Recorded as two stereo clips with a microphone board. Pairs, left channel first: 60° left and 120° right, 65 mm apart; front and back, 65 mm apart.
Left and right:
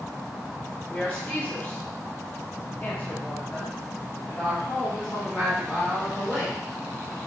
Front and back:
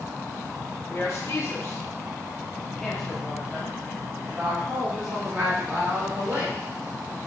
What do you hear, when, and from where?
0.9 s a woman speaking: 5° right, 1.3 m; by 6.6 s 145° left, 2 m